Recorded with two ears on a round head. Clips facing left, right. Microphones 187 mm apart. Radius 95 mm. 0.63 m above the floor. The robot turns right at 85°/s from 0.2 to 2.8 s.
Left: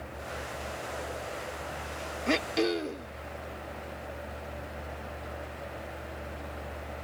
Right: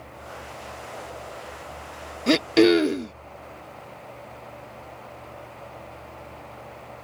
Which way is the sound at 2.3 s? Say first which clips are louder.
Right 11 dB; 130° right.